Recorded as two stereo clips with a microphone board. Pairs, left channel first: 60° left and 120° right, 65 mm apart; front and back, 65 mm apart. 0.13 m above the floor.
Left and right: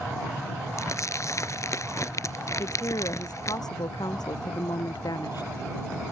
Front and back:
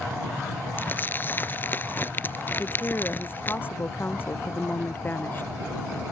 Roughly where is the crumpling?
Ahead left.